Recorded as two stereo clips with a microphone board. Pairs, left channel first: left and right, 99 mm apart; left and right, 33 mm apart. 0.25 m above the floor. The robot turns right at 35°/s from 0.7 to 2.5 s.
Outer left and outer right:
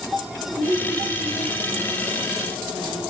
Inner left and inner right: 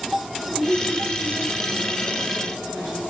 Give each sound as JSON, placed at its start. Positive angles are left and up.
{"t": 0.6, "sound": "a woman speaking", "azimuth_deg": -45, "distance_m": 4.0}